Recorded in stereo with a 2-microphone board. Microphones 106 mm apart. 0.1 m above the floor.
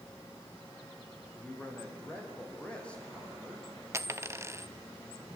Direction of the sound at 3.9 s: 25° right (ahead or behind).